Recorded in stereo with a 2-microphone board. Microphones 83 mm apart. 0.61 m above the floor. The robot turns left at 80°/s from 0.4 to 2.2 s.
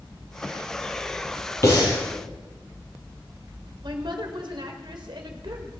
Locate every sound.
1.6 s breathing: 30° left (ahead or behind), 6 m; by 2.0 s 60° left (ahead or behind), 6 m
3.8 s a woman speaking: 65° right (ahead or behind), 2 m